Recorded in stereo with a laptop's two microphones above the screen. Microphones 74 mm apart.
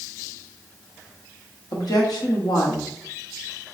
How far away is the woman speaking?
About 1.1 m.